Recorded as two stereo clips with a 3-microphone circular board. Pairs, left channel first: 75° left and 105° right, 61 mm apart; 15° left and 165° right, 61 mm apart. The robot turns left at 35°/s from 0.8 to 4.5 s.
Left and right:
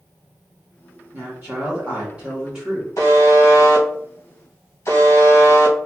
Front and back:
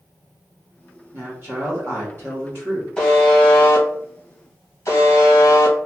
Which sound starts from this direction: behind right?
A woman speaking, at 1.1 s.